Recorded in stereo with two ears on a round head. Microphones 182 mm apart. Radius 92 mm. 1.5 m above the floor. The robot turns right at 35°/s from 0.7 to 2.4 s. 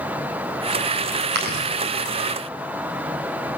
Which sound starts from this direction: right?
Chewing, at 1.3 s.